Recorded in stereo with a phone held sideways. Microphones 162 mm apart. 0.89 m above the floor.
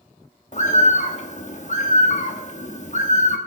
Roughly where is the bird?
Left.